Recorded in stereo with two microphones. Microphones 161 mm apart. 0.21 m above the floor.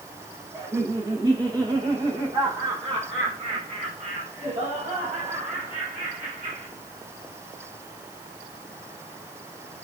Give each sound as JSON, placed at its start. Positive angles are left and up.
{"t": 0.5, "sound": "laughter", "side_deg": -25, "distance_m": 6.0}